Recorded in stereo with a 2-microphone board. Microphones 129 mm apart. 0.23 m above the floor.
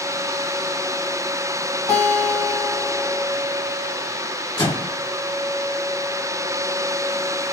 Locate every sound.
1.9 s a guitar: 35° left (ahead or behind), 1.4 m
4.6 s a microwave: 35° left (ahead or behind), 1.6 m